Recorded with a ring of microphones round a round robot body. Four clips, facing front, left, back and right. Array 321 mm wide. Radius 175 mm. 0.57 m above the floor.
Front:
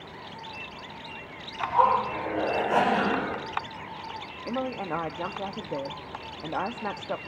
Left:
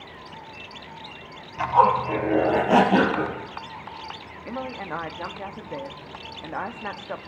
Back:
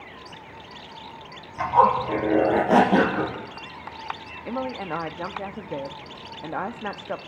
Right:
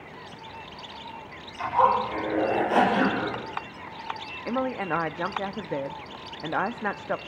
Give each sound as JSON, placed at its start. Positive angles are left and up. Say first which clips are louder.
{"t": 1.6, "sound": "a zipper", "louder": "left 3 dB, back 4 dB", "azimuth_deg": 145, "distance_m": 4.0}
{"t": 4.5, "sound": "a woman speaking", "louder": "right 5 dB, back 1 dB", "azimuth_deg": -105, "distance_m": 0.8}